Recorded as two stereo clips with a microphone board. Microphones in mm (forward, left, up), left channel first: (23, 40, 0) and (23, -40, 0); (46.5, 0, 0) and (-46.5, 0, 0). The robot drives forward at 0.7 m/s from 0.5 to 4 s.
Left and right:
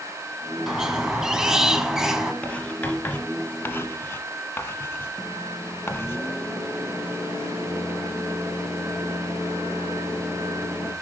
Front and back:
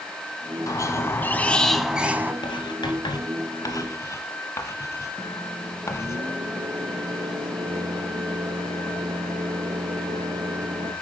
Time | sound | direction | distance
0.7 | a squeak | 10° right | 1.2 m
2.4 | writing | 15° left | 2 m
5.2 | a microwave | 155° right | 3 m